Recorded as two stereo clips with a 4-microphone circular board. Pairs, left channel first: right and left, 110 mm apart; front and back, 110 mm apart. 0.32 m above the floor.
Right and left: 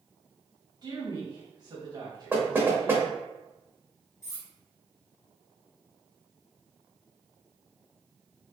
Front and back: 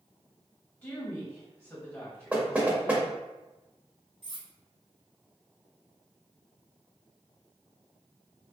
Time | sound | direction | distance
0.8 | a woman speaking | 60° left | 1.7 m
2.3 | knocking | 125° left | 0.7 m
4.2 | cutlery clinking | 150° right | 1.1 m